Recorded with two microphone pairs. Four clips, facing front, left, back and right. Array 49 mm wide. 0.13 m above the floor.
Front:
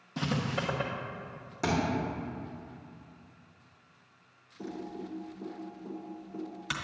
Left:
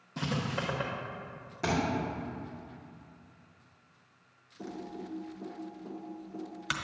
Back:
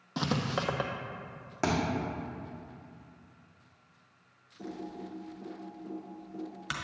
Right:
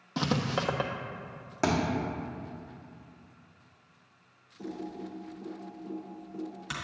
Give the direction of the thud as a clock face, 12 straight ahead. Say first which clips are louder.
Right 2 dB, even; 5 o'clock.